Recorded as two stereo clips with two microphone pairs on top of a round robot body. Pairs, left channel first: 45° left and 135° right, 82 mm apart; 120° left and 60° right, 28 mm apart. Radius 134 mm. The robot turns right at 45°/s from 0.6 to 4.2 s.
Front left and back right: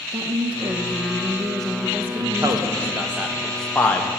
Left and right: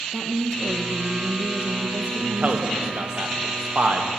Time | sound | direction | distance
0.1 | a woman speaking | 135° right | 1.2 m
2.2 | a man speaking | 105° right | 2.0 m